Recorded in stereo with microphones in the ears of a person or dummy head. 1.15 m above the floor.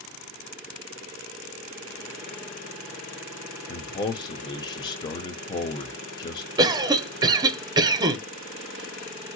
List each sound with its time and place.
3.7 s a man speaking: 20° left (ahead or behind), 0.7 m
6.6 s a cough: 25° right (ahead or behind), 0.8 m